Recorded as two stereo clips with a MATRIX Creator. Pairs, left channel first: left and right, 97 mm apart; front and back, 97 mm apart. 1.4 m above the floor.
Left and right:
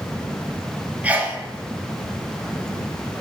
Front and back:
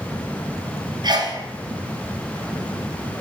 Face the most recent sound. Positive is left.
turn(degrees=-160)